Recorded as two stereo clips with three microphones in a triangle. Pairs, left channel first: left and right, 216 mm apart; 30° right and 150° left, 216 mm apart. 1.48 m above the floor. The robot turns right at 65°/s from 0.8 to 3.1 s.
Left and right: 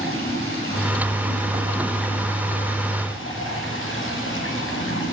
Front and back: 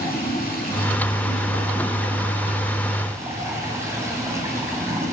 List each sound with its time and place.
0.0 s running water: 75° right, 6 m; by 5.1 s 75° left, 6 m